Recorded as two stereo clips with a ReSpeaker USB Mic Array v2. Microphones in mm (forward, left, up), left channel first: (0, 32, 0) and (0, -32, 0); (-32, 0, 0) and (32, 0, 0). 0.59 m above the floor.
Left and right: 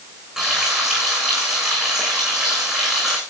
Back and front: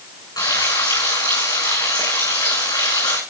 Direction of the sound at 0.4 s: 170° right.